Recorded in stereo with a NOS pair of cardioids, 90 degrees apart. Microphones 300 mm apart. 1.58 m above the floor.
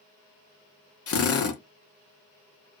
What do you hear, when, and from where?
1.1 s a drill: 50° left, 1.2 m